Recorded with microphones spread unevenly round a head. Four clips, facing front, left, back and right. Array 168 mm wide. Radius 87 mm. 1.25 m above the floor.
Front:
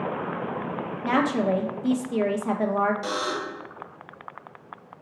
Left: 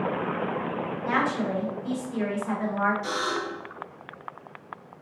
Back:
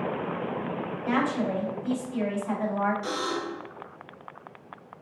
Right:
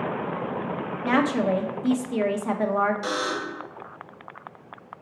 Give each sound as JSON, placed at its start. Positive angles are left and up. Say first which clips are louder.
{"t": 1.0, "sound": "a woman speaking", "louder": "right 5 dB, front 4 dB", "azimuth_deg": -40, "distance_m": 0.8}
{"t": 3.0, "sound": "a buzzer", "louder": "right 1 dB, front 2 dB", "azimuth_deg": -45, "distance_m": 1.4}